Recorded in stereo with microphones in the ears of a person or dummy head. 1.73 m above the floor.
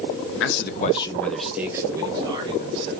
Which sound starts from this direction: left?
A man speaking, at 0.4 s.